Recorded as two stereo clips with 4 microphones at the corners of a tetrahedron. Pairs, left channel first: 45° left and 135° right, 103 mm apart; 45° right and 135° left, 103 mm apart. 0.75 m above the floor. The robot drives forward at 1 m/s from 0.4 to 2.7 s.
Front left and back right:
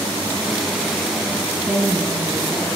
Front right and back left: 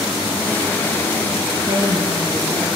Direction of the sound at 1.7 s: 150° left.